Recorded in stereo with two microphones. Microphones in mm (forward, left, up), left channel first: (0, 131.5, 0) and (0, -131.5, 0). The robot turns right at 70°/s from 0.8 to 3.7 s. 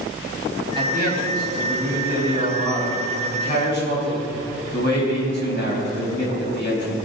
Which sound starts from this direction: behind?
A man speaking, at 0.8 s.